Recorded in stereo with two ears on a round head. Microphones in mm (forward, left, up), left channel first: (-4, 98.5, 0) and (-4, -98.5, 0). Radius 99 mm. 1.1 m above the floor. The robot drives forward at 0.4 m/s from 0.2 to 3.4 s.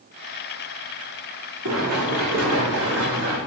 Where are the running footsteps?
65° right (ahead or behind), 4 m; by 3.4 s 50° right (ahead or behind), 4.5 m.